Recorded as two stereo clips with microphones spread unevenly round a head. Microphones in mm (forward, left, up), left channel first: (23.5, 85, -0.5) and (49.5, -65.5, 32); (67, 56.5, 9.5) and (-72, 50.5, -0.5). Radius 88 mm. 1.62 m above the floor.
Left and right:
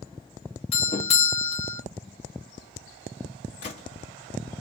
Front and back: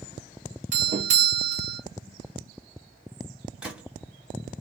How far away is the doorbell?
About 1.2 m.